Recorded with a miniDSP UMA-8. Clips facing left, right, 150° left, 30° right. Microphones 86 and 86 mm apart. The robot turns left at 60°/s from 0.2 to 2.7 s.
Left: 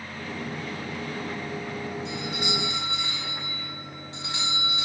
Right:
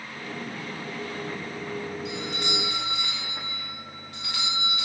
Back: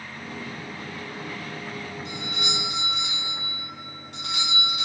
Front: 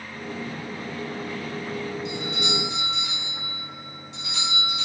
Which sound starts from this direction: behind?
A doorbell, at 2.0 s.